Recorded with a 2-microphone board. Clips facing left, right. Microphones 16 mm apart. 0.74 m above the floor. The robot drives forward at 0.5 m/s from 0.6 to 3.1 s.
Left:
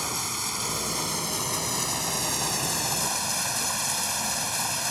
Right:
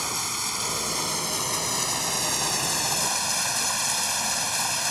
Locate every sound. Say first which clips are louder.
0.0 s running water: right 1 dB; 10° right (ahead or behind); by 4.9 s 15° right (ahead or behind)